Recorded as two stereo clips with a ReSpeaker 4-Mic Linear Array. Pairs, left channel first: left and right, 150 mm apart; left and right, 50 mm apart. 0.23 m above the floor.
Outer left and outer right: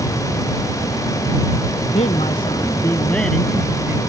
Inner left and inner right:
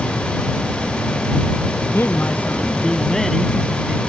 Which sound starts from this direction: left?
A man speaking, at 1.9 s.